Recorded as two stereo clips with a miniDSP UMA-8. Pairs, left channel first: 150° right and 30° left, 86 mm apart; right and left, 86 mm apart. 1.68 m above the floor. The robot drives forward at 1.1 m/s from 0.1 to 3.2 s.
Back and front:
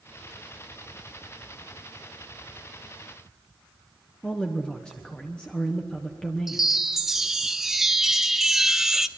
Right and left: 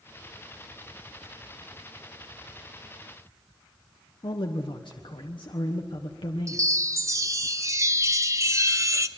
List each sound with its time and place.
4.2 s a man speaking: 70° right, 1.2 m
6.5 s a chime: 115° left, 0.8 m